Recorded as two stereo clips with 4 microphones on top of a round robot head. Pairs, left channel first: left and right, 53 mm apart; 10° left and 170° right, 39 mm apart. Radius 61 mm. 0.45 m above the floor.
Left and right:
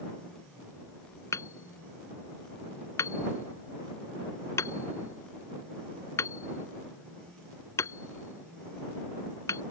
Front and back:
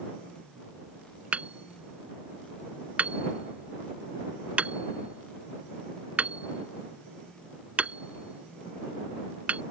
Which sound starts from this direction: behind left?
Hammering, at 1.3 s.